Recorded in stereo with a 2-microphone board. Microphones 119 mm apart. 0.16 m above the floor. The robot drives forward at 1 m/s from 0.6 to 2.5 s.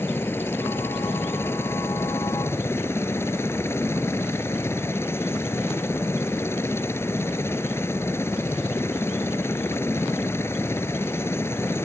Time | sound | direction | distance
0.0 | a helicopter | 20° left (ahead or behind) | ?